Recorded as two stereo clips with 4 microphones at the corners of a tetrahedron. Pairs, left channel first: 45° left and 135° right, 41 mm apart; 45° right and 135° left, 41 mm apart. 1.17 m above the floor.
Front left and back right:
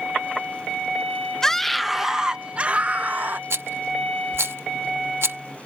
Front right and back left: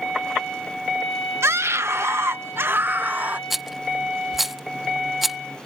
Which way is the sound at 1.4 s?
125° left.